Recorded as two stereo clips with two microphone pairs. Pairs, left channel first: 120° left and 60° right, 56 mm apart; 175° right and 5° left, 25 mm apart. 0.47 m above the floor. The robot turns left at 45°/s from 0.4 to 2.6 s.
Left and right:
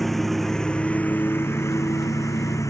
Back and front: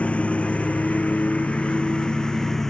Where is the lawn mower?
150° right; by 2.7 s 110° left.